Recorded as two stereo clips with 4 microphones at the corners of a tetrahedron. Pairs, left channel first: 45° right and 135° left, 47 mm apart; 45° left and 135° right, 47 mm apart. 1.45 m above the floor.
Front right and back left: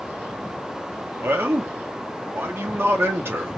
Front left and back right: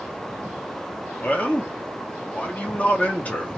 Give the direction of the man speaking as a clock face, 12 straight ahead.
9 o'clock.